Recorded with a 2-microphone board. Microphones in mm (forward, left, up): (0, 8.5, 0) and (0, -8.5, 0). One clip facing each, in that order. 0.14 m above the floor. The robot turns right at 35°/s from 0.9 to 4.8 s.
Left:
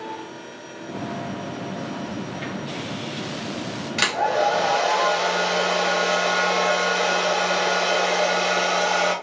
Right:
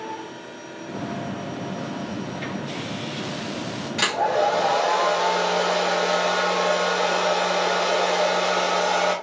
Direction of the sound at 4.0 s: 25° left (ahead or behind).